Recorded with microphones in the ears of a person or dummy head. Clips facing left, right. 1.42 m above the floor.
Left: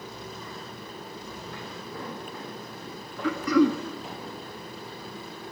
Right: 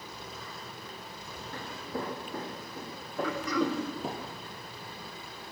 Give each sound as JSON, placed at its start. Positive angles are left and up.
{"t": 1.5, "sound": "footsteps", "side_deg": -40, "distance_m": 5.0}
{"t": 3.2, "sound": "throat clearing", "side_deg": 65, "distance_m": 1.7}